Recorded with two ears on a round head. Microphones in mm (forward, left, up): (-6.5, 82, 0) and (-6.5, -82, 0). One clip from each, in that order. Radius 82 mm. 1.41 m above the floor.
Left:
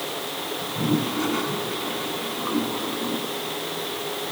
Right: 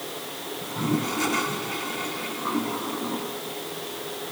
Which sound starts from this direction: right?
A toilet flushing, at 0.6 s.